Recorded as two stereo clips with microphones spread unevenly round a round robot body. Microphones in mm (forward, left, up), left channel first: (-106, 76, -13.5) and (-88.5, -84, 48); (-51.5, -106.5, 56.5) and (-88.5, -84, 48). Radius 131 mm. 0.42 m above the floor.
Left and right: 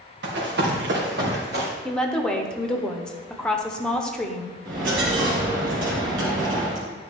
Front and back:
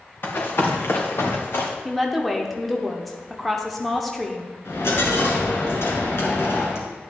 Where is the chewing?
No chewing in this recording.